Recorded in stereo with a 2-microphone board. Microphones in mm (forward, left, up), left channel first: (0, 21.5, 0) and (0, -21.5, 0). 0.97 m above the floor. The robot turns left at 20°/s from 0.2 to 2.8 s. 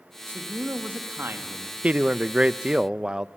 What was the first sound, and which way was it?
A man speaking, 45° right (ahead or behind).